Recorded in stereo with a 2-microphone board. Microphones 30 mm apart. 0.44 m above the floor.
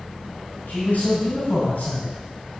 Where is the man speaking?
65° left (ahead or behind), 3 m.